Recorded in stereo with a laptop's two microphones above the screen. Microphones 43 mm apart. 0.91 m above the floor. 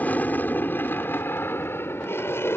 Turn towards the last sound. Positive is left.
turn(degrees=70)  # may be behind; listen again after turning